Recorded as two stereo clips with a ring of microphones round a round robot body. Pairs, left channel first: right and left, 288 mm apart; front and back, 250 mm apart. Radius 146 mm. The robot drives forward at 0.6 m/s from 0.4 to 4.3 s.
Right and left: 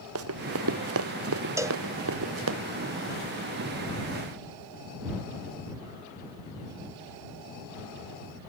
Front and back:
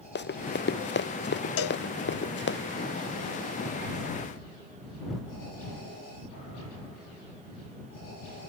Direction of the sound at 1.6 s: 10° left.